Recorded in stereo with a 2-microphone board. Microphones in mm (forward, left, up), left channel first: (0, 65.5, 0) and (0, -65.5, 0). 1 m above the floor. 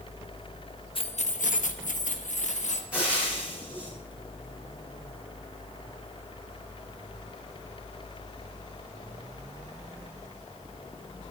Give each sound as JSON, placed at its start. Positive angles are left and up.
{"t": 0.9, "sound": "keys jangling", "side_deg": 45, "distance_m": 0.8}
{"t": 2.9, "sound": "frying", "side_deg": -10, "distance_m": 7.0}